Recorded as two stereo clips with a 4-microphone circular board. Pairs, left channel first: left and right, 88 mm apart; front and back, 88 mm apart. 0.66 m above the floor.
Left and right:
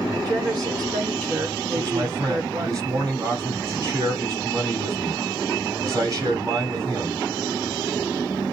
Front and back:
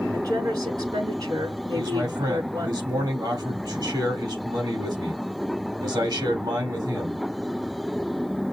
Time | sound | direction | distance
0.1 | a woman speaking | 135° right | 5 m
1.8 | a man speaking | 135° right | 3 m